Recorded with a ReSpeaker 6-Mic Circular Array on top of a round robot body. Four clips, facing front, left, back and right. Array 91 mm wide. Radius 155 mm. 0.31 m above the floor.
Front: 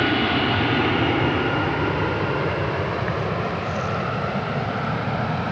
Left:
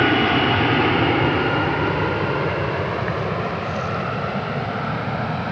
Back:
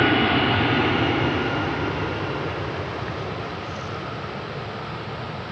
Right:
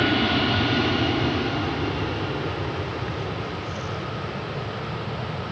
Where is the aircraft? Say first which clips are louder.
Left 4 dB, back 1 dB; 105° left; by 5.5 s 50° left.